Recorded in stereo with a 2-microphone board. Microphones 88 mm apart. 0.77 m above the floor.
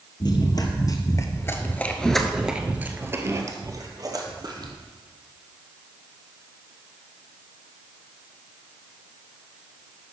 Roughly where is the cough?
I don't hear a cough.